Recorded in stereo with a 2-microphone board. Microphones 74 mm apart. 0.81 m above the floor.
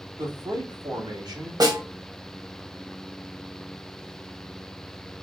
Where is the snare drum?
70° right (ahead or behind), 1.7 m.